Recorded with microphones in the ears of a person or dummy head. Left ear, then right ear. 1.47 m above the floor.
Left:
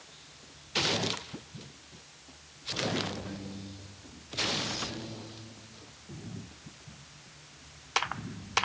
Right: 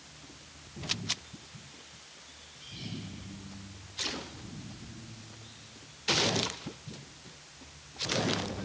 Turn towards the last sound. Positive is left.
No sound to turn to.